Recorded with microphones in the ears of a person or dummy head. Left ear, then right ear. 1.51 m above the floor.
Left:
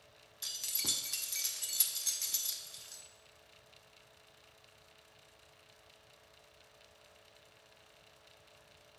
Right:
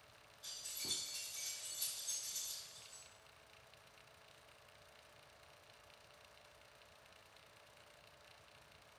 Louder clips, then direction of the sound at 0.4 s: Left 9 dB; 55° left (ahead or behind).